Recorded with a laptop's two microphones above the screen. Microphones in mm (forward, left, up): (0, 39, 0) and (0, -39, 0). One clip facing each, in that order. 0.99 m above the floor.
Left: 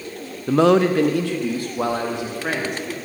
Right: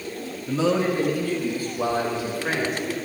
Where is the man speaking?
55° left (ahead or behind), 0.5 m; by 2.9 s 60° left (ahead or behind), 1.6 m.